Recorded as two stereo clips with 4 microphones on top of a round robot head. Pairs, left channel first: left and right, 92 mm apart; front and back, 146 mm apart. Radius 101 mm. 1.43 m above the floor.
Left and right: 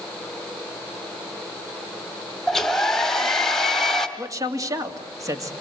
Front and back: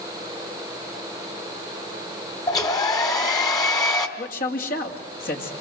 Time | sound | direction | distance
2.5 | a hair dryer | 15° left | 1.3 m
4.2 | a man speaking | 35° right | 2.5 m